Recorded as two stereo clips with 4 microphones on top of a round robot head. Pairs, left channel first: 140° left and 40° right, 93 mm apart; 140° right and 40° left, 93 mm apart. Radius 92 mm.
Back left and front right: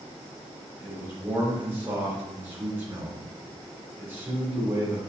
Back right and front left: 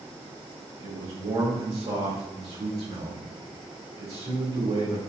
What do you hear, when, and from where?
0.8 s a man speaking: 30° left, 1.7 m